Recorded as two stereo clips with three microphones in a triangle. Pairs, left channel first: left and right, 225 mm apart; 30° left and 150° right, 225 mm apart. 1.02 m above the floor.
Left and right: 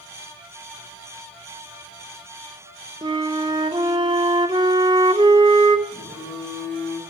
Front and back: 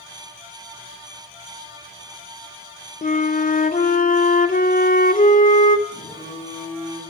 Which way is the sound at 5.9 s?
85° left.